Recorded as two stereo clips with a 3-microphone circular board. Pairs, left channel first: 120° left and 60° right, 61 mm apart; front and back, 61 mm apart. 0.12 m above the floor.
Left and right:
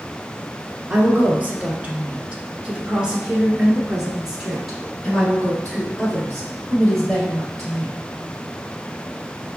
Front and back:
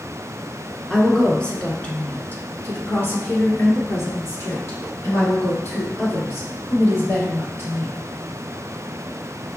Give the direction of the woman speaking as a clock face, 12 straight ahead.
3 o'clock.